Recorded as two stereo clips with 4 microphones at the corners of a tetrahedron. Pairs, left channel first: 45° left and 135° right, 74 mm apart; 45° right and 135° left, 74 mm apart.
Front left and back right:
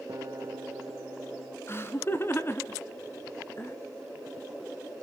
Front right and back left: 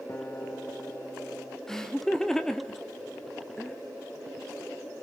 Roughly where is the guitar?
Right.